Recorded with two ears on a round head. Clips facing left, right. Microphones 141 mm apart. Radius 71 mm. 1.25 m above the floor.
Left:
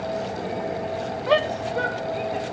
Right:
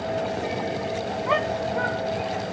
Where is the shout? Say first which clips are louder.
Left 4 dB; 40° left (ahead or behind).